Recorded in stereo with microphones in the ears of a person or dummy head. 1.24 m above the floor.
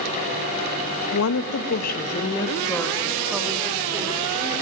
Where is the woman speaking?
85° left, 1.2 m; by 4.6 s 15° right (ahead or behind), 3.5 m.